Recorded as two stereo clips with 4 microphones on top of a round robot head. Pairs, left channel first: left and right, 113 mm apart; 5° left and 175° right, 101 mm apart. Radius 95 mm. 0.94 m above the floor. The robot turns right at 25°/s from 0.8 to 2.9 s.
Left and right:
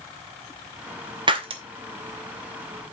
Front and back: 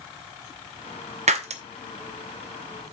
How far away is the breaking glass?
About 0.7 m.